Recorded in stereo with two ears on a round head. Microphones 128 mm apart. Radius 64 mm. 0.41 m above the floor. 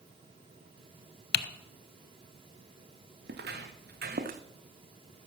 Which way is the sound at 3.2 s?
80° right.